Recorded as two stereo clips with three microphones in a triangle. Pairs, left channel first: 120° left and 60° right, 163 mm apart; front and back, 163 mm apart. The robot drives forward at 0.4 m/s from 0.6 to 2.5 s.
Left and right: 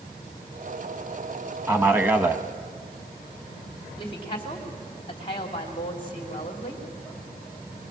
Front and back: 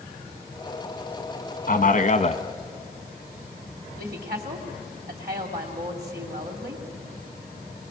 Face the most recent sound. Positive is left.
turn(degrees=175)